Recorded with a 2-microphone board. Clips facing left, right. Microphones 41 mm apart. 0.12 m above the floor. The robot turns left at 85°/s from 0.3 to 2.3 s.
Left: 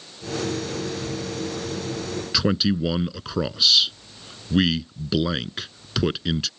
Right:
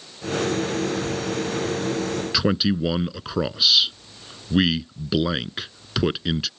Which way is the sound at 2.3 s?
5° right (ahead or behind).